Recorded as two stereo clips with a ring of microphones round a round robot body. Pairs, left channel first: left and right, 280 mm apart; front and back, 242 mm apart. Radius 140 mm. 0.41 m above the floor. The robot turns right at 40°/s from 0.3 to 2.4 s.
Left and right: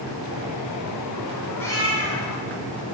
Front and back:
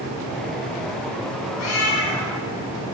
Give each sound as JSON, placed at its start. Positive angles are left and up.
{"t": 1.6, "sound": "a cat meowing", "azimuth_deg": 5, "distance_m": 2.5}